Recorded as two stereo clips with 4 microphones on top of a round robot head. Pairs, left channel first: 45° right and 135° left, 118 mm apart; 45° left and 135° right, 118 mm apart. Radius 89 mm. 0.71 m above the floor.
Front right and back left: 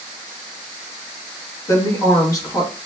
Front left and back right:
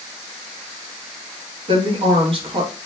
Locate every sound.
1.7 s a woman speaking: 100° right, 0.8 m